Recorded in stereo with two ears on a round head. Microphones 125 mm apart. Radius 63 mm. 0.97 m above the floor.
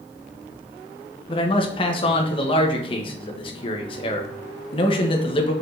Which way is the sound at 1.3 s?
40° left (ahead or behind).